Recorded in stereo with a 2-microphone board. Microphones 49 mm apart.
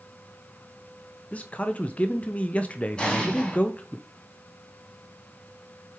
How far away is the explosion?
About 1.7 m.